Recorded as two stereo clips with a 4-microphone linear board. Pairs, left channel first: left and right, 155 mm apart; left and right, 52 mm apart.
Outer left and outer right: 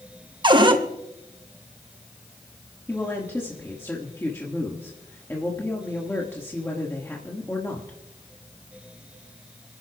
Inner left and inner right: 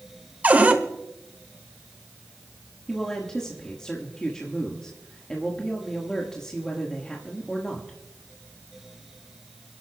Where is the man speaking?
15° left (ahead or behind), 1.4 m.